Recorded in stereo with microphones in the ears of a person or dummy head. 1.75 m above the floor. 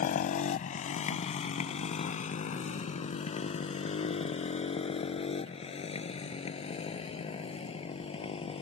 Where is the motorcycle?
50° left (ahead or behind); by 8.6 s 35° left (ahead or behind).